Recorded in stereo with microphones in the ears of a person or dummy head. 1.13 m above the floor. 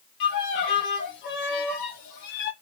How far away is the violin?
About 0.9 m.